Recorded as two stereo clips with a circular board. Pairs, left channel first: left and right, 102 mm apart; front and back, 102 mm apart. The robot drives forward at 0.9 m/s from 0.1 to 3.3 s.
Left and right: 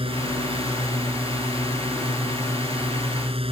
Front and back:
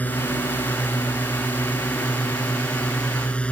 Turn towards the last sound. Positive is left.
turn(degrees=-75)